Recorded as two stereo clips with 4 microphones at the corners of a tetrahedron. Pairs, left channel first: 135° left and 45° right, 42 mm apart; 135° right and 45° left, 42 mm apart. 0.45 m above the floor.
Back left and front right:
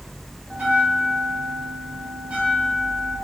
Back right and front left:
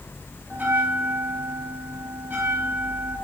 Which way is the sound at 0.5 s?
5° left.